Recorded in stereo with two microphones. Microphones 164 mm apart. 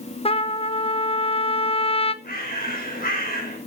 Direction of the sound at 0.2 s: 35° left (ahead or behind).